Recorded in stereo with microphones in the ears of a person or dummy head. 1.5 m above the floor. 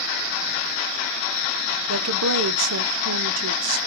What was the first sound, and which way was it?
A woman speaking, 75° right (ahead or behind).